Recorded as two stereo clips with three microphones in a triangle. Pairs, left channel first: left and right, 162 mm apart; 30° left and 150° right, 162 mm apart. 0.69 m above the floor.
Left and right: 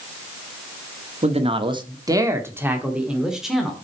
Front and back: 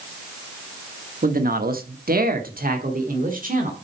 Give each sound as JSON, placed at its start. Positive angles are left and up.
{"t": 1.2, "sound": "a man speaking", "azimuth_deg": -135, "distance_m": 1.1}